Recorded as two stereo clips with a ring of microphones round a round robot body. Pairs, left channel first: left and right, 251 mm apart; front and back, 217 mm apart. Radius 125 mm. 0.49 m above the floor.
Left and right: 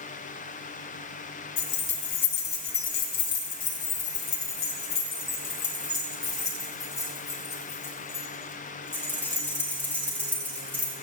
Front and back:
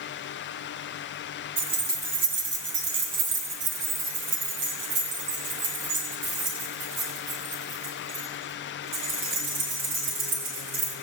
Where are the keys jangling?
130° left, 2.5 m; by 10.9 s 175° left, 7 m.